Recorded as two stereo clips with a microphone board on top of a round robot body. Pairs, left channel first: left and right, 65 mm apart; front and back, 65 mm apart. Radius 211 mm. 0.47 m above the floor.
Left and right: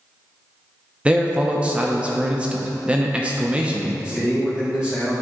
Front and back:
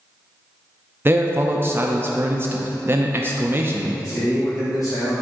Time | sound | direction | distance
1.1 | a man speaking | 150° right | 0.7 m
4.0 | a man speaking | 10° right | 2.0 m